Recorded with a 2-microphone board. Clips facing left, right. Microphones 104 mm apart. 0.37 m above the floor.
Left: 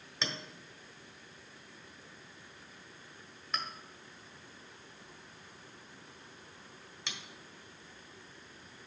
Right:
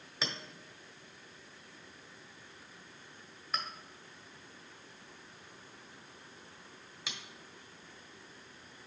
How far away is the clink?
About 1.2 m.